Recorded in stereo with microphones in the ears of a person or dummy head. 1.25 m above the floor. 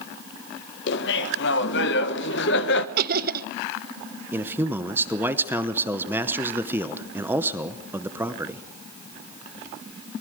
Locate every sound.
0.9 s laughter: 60° left (ahead or behind), 1.2 m
3.0 s laughter: 55° right (ahead or behind), 0.7 m
4.3 s a man speaking: 15° right (ahead or behind), 0.7 m